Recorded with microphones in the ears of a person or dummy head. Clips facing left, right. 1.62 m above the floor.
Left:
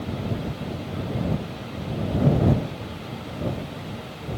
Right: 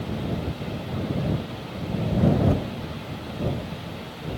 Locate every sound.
Only background noise.